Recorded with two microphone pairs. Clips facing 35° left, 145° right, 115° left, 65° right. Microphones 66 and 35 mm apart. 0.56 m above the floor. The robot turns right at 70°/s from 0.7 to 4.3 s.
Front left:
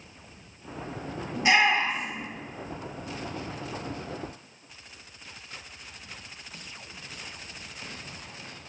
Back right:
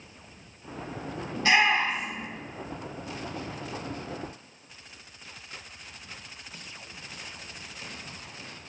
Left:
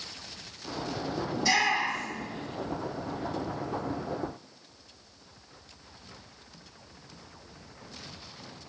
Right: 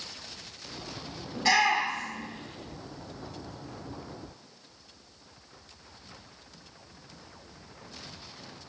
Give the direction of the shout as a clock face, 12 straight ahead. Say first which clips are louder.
Front left 1 dB, right 2 dB; 1 o'clock.